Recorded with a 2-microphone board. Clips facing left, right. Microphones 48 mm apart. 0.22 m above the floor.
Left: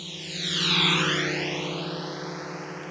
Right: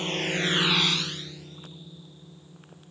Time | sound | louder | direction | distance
0.0 | a drone | right 8 dB | 60° right (ahead or behind) | ?